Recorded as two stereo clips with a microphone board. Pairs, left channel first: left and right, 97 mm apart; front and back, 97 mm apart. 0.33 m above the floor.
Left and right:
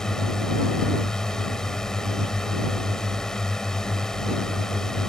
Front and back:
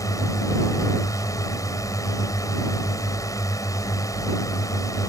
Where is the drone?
10° left.